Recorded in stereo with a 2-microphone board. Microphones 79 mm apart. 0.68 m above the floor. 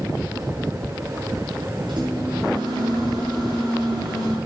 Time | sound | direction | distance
1.9 | a microwave | 65° right (ahead or behind) | 6.5 m